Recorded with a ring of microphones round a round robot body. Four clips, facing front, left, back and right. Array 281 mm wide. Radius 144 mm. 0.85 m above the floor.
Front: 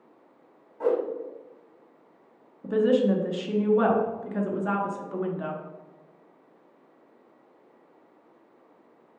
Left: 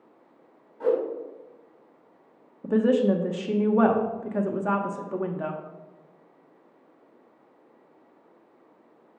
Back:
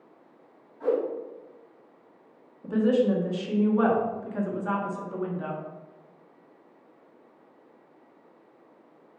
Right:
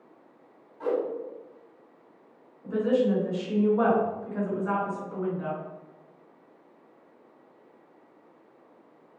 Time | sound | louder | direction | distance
0.8 | a whoosh | left 4 dB, front 1 dB | 15° left | 2.0 m
2.6 | a woman speaking | left 3 dB, front 1 dB | 80° left | 1.3 m